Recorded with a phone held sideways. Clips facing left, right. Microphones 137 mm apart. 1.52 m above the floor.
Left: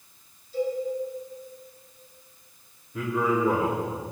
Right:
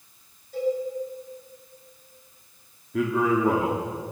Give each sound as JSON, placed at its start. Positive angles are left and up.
{"t": 0.5, "sound": "a cowbell", "side_deg": -60, "distance_m": 7.5}
{"t": 2.9, "sound": "a man speaking", "side_deg": -75, "distance_m": 3.5}